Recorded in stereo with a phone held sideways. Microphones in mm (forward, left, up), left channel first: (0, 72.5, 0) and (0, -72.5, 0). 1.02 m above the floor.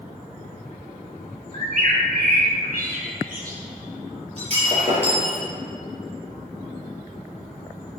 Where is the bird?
70° right (ahead or behind), 2.5 m.